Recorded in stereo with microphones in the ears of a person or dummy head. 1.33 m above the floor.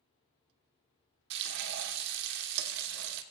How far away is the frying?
About 1.0 m.